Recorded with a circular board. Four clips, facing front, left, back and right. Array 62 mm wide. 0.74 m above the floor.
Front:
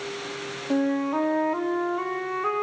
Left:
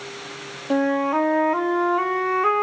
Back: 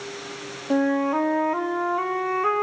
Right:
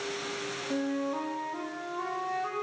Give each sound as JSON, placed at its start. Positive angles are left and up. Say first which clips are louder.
{"t": 0.7, "sound": "a flute", "louder": "left 12 dB, back 3 dB", "azimuth_deg": 110, "distance_m": 0.7}